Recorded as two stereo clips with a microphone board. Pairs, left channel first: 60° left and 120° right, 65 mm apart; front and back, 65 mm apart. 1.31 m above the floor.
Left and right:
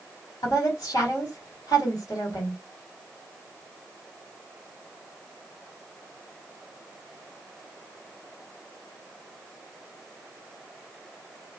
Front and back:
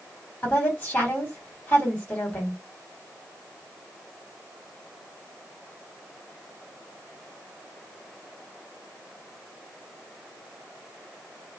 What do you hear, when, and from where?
0.4 s a woman speaking: 65° left, 1.7 m